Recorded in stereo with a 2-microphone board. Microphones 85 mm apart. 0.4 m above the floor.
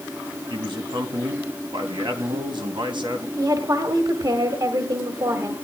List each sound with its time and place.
0.5 s a man speaking: 70° right (ahead or behind), 2.5 m
3.4 s a woman speaking: 45° right (ahead or behind), 1.8 m